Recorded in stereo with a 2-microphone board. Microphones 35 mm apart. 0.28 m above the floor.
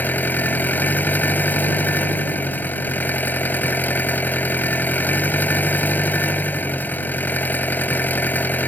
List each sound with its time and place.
0.0 s an engine running: 60° left (ahead or behind)